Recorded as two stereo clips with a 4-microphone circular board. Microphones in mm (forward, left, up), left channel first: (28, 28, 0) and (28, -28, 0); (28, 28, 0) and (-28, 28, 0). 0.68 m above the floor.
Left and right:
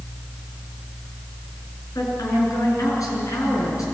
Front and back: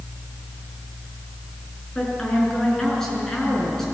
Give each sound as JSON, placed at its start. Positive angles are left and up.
{"t": 1.9, "sound": "a woman speaking", "azimuth_deg": 80, "distance_m": 7.5}